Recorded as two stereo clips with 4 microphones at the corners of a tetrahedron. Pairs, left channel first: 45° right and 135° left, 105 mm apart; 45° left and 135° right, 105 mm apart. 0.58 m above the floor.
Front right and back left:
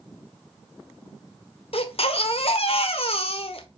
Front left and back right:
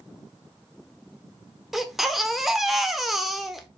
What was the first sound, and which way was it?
A baby crying, 50° right.